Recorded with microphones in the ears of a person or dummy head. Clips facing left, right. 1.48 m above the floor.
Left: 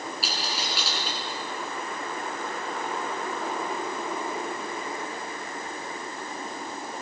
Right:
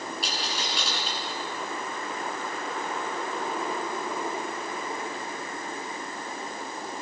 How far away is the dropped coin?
About 8 m.